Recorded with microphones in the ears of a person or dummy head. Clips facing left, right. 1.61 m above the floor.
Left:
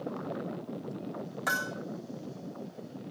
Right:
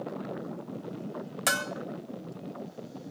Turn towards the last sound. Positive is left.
turn(degrees=-25)  # may be behind; listen again after turning